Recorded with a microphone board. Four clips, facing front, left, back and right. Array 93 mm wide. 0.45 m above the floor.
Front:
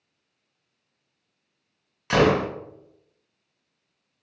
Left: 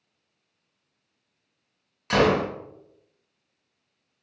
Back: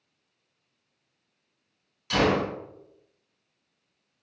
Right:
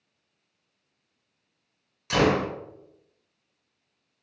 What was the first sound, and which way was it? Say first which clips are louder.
A gunshot: left 2 dB, front 4 dB; 35° left.